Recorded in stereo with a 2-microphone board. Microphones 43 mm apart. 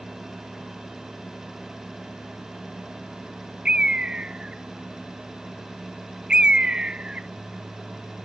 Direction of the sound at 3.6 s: 20° right (ahead or behind).